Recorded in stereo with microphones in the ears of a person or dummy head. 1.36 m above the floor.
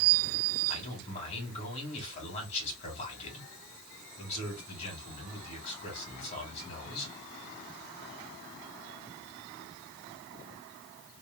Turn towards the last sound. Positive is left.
turn(degrees=40)  # may be behind; listen again after turning